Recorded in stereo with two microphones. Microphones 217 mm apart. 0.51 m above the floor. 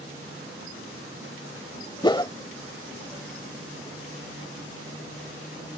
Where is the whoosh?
20° left (ahead or behind).